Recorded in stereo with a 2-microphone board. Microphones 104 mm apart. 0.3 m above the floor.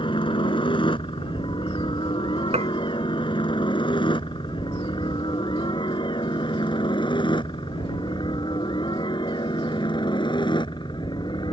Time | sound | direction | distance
0.0 | a helicopter | 55° left (ahead or behind) | ?
2.5 | dishes clattering | 80° right | ?